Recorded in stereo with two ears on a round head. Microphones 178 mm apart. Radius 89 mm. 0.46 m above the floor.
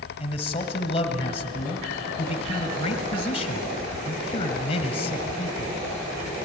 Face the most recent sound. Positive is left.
turn(degrees=30)  # may be behind; listen again after turning